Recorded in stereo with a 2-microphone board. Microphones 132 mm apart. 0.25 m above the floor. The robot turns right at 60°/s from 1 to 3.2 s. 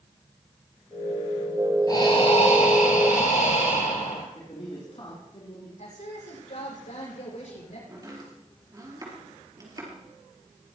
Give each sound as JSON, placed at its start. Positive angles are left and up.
{"t": 1.9, "sound": "breathing", "azimuth_deg": 30, "distance_m": 3.5}
{"t": 4.3, "sound": "a man speaking", "side_deg": 45, "distance_m": 4.0}
{"t": 5.8, "sound": "a woman speaking", "side_deg": 65, "distance_m": 9.5}
{"t": 7.9, "sound": "chopping", "side_deg": -30, "distance_m": 4.5}